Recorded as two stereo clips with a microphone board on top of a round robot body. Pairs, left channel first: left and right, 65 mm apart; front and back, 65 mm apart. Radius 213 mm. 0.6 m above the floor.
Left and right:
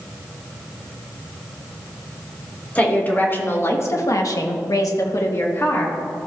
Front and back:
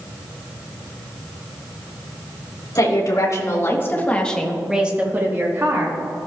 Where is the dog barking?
I don't hear a dog barking.